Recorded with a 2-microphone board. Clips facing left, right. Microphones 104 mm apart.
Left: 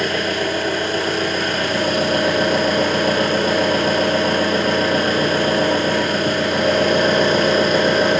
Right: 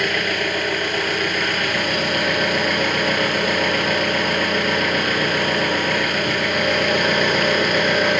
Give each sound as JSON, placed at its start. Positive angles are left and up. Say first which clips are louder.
{"t": 0.0, "sound": "an engine running", "louder": "left 2 dB", "side_deg": 30, "distance_m": 1.4}